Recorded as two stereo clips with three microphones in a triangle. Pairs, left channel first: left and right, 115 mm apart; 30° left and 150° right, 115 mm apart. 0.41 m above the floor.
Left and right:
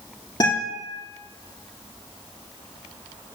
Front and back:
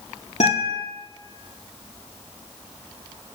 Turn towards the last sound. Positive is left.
turn(degrees=35)